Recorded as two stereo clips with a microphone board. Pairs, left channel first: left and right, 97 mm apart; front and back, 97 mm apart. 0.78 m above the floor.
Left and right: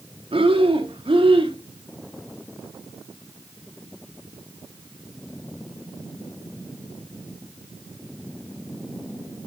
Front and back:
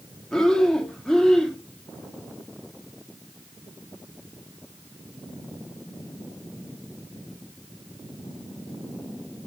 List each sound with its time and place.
0.3 s breathing: 85° right, 0.8 m